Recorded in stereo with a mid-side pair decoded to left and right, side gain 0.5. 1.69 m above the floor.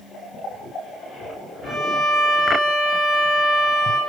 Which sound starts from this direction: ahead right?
A violin, at 1.6 s.